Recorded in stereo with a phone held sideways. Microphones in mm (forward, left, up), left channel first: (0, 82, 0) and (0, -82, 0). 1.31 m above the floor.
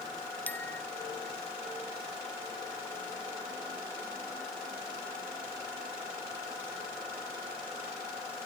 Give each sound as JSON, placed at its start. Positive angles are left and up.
{"t": 0.5, "sound": "a bicycle bell", "side_deg": 10}